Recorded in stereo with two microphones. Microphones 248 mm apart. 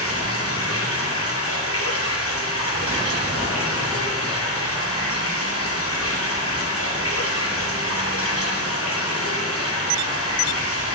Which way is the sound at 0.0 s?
65° left (ahead or behind).